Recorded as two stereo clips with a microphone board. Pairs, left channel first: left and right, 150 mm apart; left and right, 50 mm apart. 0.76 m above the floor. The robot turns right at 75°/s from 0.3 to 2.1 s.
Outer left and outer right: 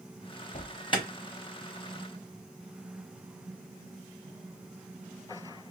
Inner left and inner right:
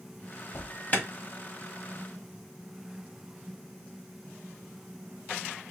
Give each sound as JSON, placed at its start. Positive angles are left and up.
{"t": 0.5, "sound": "an alarm", "side_deg": 55, "distance_m": 1.0}